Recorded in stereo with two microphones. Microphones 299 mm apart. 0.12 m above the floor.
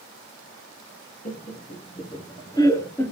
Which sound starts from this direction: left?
Laughter, at 1.2 s.